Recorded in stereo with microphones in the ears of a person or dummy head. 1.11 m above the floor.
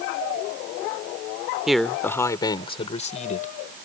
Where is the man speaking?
5° right (ahead or behind); by 3.5 s 45° left (ahead or behind).